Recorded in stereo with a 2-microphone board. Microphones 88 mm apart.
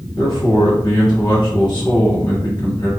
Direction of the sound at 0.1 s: 55° left (ahead or behind).